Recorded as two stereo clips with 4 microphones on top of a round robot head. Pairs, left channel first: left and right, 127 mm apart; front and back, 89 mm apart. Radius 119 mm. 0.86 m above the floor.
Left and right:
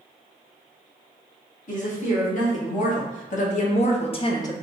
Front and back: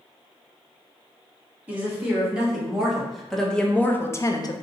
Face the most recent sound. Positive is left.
turn(degrees=25)